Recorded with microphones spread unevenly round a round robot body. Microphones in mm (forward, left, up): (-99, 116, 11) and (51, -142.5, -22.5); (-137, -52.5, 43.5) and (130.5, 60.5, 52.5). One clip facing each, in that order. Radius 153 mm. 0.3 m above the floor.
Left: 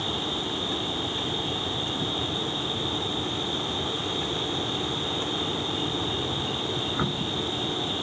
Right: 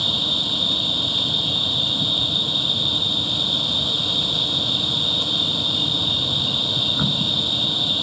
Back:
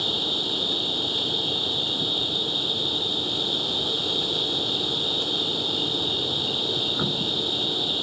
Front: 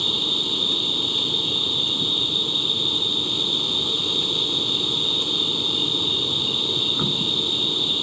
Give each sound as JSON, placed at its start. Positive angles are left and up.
{"t": 0.0, "sound": "an insect", "azimuth_deg": -55}